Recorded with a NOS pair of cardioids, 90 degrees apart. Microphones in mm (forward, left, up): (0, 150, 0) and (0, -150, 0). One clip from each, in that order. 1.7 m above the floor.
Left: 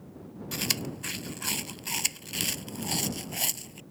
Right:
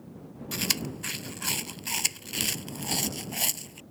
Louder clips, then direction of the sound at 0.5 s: Right 1 dB; 10° right.